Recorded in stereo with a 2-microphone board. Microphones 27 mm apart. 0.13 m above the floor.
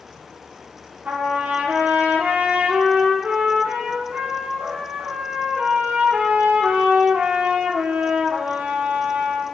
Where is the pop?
No pop in this recording.